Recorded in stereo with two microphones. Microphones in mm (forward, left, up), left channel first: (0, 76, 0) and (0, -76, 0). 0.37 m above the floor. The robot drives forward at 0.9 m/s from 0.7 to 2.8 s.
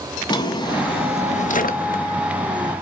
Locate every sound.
0.3 s a drawer: 30° left (ahead or behind), 1.1 m; by 2.0 s 60° left (ahead or behind), 0.6 m